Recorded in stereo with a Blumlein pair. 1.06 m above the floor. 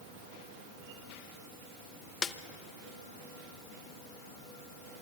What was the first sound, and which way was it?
A snare drum, 20° left.